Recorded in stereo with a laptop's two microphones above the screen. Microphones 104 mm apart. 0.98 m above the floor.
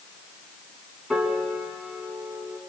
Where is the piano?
Centre (ahead or behind), 5 m.